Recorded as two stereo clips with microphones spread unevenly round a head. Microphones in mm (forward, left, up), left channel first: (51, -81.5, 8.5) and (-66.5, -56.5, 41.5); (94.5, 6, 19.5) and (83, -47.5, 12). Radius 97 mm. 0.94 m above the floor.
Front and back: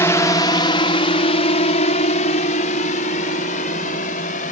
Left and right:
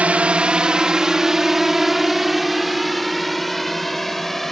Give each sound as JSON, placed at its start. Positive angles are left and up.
{"t": 0.0, "sound": "a drone", "azimuth_deg": -55}